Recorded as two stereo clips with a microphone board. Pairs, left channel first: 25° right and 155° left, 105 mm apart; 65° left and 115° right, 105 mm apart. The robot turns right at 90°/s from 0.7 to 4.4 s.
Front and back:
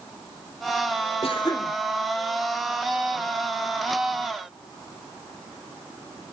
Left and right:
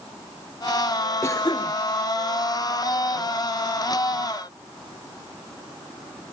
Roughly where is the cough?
Ahead.